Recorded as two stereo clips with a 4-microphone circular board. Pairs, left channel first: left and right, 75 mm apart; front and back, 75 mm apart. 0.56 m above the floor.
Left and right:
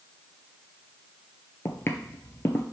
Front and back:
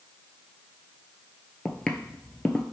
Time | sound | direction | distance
1.6 | footsteps | 70° left | 0.6 m